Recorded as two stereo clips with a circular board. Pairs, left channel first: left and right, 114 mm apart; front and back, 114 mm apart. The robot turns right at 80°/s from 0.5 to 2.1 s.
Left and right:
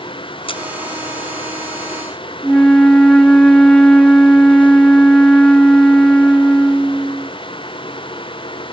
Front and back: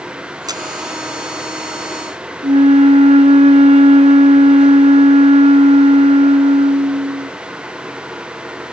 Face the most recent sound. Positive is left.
turn(degrees=170)